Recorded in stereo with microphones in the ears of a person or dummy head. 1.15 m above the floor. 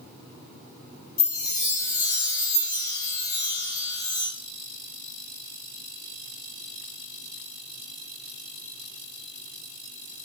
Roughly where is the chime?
Left.